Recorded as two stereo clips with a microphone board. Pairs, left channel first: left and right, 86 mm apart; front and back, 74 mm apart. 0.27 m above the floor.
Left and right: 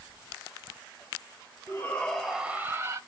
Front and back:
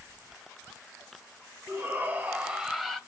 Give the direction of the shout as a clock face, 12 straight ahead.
7 o'clock.